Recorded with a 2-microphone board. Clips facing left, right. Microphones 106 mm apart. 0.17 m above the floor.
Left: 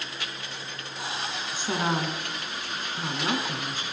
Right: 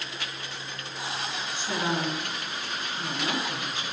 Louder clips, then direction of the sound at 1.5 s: Left 2 dB; 40° left (ahead or behind).